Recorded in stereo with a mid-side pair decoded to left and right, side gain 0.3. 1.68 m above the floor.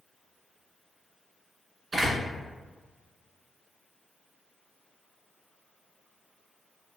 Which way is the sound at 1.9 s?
60° right.